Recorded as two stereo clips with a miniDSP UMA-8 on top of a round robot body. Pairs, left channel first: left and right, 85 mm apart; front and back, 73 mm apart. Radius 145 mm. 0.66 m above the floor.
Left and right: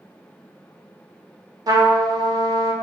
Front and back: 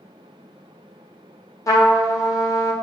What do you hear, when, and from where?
1.7 s a trumpet: 45° right, 0.8 m